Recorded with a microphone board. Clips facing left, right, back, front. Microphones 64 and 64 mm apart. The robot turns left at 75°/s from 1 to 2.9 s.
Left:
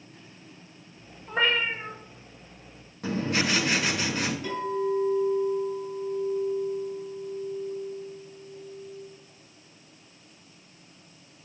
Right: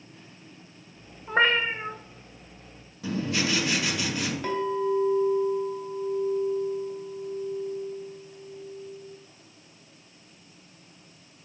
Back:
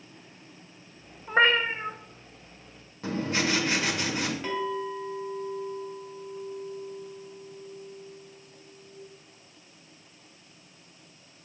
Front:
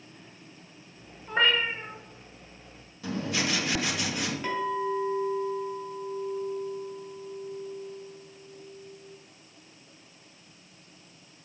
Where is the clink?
90° right, 2.5 m.